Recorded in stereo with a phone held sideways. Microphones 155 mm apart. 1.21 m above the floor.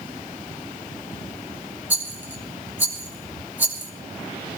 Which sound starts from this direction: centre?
A rattle, at 1.9 s.